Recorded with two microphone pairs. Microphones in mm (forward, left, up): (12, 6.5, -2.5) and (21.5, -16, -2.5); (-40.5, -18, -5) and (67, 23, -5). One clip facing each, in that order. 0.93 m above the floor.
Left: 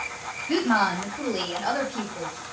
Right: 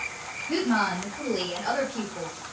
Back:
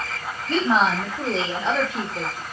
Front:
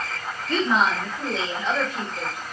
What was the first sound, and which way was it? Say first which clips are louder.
A woman speaking: left 3 dB, back 2 dB; 160° left.